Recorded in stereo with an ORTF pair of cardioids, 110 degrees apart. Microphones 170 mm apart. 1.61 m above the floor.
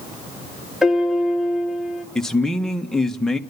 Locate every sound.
0.8 s a piano: straight ahead, 3 m
2.1 s a man speaking: 5° left, 1.8 m